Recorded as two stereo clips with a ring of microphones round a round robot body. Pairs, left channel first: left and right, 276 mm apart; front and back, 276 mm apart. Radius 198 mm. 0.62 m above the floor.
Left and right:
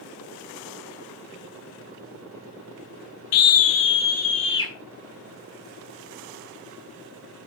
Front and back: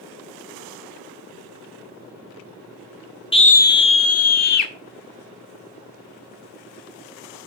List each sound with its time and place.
3.3 s a scream: 70° left, 1.1 m; by 4.7 s 10° left, 1.5 m